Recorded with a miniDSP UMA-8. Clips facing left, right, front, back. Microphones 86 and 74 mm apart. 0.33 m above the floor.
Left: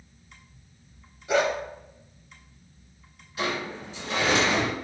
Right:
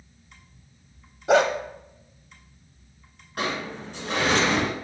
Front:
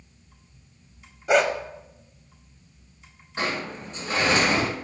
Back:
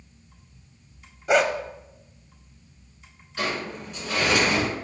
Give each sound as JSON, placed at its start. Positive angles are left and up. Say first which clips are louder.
{"t": 1.3, "sound": "a dog barking", "louder": "right 5 dB, even", "azimuth_deg": -85, "distance_m": 0.6}
{"t": 3.4, "sound": "a sliding door", "louder": "right 1 dB, even", "azimuth_deg": -60, "distance_m": 2.5}